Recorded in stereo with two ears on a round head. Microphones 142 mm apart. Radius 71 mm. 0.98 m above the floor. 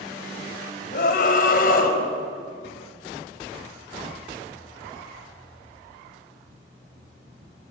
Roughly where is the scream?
Left.